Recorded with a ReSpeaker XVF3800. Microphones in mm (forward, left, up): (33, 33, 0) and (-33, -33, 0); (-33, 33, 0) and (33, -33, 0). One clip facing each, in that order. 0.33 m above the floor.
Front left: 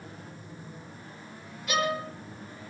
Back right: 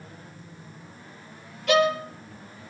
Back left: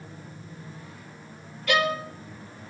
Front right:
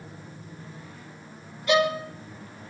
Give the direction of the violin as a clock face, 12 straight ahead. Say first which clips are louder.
Back right 8 dB, front right 2 dB; 4 o'clock.